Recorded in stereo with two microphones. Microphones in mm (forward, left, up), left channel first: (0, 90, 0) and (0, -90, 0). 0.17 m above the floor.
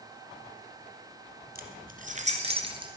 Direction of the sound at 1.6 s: 55° right (ahead or behind).